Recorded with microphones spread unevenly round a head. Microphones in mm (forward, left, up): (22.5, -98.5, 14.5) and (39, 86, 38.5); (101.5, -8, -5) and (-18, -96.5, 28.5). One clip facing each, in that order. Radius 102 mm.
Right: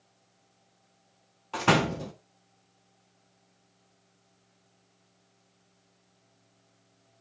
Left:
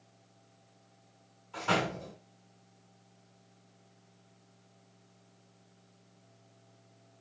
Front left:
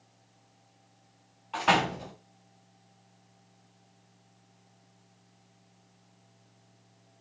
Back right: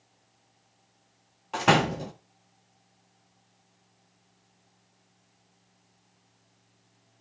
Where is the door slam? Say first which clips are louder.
Right 7 dB, back right 3 dB; 115° right, 1.6 m.